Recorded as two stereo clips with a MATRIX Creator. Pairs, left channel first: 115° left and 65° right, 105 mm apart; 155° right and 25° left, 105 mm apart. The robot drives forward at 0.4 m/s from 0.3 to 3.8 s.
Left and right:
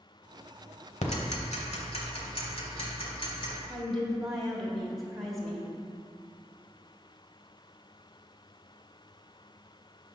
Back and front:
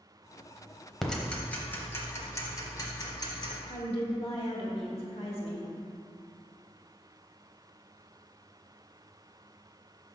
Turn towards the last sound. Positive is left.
turn(degrees=-160)